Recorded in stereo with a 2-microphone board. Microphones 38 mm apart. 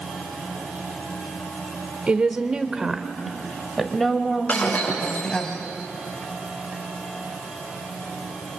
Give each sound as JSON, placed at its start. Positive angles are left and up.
{"t": 2.1, "sound": "a woman speaking", "side_deg": -30, "distance_m": 1.3}
{"t": 4.5, "sound": "breaking glass", "side_deg": 40, "distance_m": 9.0}